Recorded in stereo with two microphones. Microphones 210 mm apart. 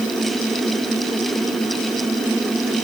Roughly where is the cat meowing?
No cat meowing in this recording.